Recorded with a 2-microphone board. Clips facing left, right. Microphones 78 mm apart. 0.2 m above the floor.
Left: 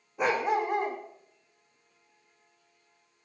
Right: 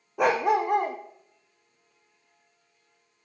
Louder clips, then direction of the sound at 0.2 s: Right 4 dB; 60° right (ahead or behind).